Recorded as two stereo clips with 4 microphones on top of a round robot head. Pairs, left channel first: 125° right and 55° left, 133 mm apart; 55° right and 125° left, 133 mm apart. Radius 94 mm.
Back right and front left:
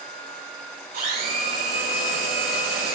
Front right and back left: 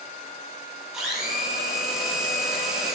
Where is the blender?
35° left, 7 m.